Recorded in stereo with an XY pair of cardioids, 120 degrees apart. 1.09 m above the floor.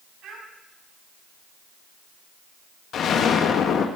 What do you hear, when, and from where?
0.2 s a child speaking: 65° right, 6 m
2.9 s an explosion: 55° left, 1.6 m